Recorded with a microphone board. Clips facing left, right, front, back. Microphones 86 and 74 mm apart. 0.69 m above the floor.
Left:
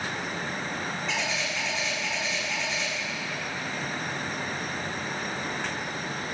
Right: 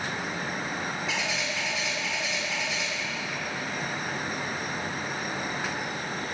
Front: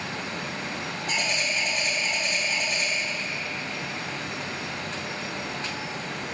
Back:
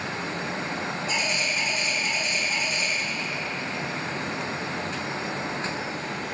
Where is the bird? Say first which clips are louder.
Even, front 2 dB; 5° right, 1.5 m.